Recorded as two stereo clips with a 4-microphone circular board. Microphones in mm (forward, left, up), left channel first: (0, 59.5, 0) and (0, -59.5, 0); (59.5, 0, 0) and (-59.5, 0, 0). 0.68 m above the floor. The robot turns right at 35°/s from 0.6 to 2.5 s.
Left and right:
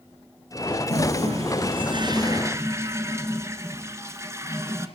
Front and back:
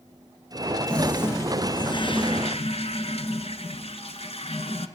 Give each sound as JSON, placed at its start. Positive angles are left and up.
{"t": 0.9, "sound": "a toilet flushing", "azimuth_deg": -80, "distance_m": 1.5}